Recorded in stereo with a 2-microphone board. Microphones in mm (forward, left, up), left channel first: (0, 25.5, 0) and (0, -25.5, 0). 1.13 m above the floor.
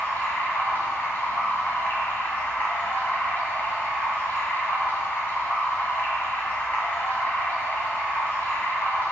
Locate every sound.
0.0 s running water: 40° left (ahead or behind), 2.5 m